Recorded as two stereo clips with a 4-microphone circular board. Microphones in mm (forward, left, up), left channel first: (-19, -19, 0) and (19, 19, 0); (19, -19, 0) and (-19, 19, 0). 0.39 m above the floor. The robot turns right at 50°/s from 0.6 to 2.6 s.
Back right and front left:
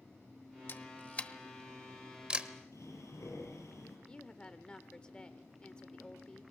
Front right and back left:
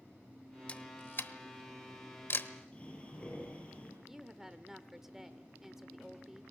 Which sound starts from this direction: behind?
A woman speaking, at 4.1 s.